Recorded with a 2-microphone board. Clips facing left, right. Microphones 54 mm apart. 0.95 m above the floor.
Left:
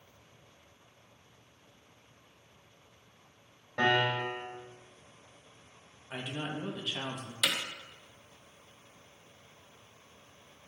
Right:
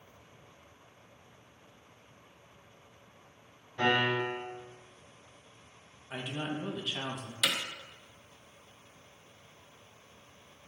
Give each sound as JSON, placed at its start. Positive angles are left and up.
{"t": 3.8, "sound": "a piano", "side_deg": 85, "distance_m": 3.5}
{"t": 6.1, "sound": "a man speaking", "side_deg": 0, "distance_m": 1.5}
{"t": 7.4, "sound": "hammering", "side_deg": 10, "distance_m": 1.1}